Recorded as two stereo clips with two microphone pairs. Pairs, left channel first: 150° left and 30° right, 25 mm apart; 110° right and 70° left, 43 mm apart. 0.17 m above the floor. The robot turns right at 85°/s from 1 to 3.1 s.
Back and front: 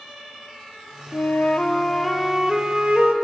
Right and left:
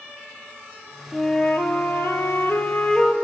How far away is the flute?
About 0.7 m.